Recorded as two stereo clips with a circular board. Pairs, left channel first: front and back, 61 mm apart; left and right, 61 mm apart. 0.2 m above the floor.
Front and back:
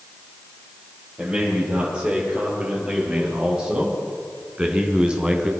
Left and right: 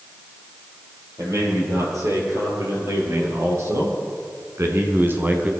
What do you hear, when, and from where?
1.2 s a man speaking: 105° right, 5.5 m; by 5.5 s 120° right, 1.4 m